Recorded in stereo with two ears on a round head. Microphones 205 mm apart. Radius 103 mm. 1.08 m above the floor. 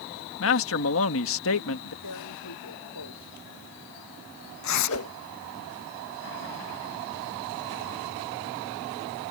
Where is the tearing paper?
80° left.